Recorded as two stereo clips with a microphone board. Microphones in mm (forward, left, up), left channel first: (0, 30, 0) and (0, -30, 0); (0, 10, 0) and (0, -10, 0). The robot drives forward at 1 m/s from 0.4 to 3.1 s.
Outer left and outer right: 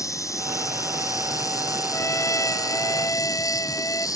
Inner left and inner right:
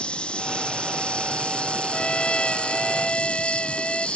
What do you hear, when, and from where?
0.0 s an insect: 60° left (ahead or behind); by 4.2 s 75° left (ahead or behind)
1.9 s a trumpet: 55° left (ahead or behind); by 4.1 s 65° left (ahead or behind)